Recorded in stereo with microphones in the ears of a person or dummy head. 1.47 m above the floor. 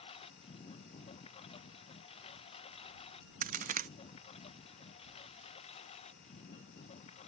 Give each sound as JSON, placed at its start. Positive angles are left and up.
{"t": 0.0, "sound": "a lawn mower", "side_deg": 30}
{"t": 3.4, "sound": "a crack", "side_deg": -40}